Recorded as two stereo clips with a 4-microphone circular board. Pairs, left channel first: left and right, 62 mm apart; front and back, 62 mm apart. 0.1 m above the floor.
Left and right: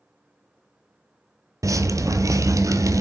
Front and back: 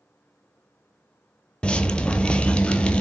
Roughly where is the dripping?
Right.